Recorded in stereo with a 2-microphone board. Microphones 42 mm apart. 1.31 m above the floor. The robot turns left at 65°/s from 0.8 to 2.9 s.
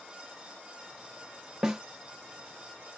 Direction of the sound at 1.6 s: 20° right (ahead or behind).